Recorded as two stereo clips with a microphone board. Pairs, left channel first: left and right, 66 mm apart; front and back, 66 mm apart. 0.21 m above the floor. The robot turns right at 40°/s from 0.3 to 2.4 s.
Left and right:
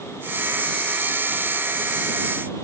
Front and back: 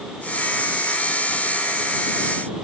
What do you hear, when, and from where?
Only background noise.